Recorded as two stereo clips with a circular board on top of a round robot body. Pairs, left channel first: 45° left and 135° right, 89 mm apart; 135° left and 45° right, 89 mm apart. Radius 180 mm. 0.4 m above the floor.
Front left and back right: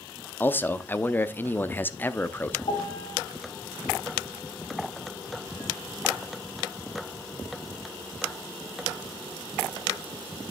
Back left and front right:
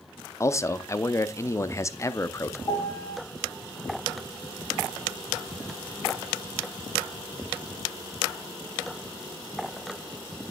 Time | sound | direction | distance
0.4 | a man speaking | 100° left | 0.9 m
2.7 | a piano | 80° left | 1.0 m